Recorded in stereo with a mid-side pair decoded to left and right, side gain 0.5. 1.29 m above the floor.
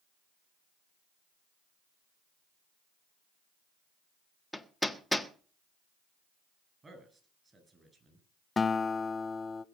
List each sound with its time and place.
4.5 s hammering: 5° left, 1.4 m
6.8 s a man speaking: 25° right, 8.5 m
8.6 s a guitar: 30° left, 0.8 m